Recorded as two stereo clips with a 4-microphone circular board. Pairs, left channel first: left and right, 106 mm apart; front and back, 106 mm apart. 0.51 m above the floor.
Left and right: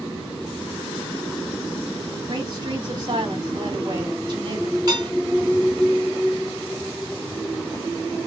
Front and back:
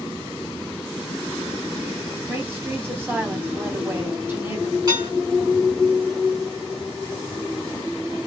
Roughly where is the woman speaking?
Behind right.